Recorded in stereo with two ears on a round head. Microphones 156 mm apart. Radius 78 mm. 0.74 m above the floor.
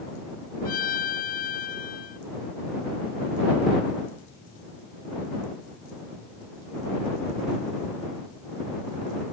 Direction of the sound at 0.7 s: 55° left (ahead or behind).